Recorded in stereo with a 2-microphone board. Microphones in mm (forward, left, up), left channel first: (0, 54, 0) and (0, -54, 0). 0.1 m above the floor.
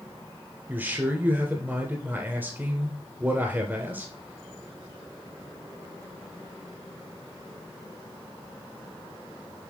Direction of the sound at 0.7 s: 20° right (ahead or behind).